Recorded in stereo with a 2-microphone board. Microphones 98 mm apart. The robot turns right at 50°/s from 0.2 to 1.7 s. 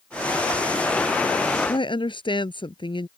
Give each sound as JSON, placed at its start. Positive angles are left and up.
{"t": 1.7, "sound": "a woman speaking", "side_deg": 55}